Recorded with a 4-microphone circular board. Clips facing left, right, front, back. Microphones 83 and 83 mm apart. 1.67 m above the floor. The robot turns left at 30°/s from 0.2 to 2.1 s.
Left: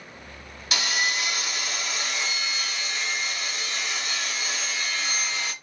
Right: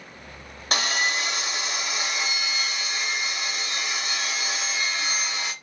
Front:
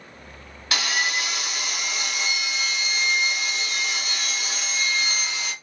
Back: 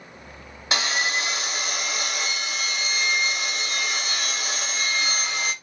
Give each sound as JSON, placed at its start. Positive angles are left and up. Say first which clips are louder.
{"t": 0.7, "sound": "sawing", "louder": "right 2 dB, back 1 dB", "azimuth_deg": -120, "distance_m": 1.0}